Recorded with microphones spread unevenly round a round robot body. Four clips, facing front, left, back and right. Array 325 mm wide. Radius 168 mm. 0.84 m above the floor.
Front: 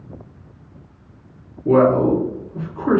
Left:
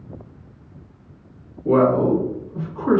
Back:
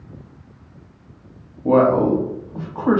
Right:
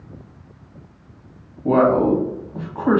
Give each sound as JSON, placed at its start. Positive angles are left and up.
{"t": 1.6, "sound": "a man speaking", "azimuth_deg": -135, "distance_m": 1.3}